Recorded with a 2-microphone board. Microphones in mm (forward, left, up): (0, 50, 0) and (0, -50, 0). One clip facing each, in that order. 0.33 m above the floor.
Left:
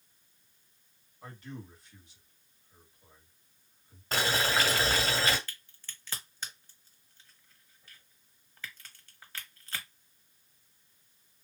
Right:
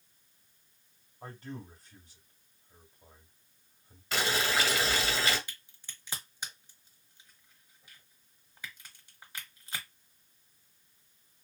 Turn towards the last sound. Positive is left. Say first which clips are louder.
# left 1 dB
turn(degrees=-15)  # may be behind; listen again after turning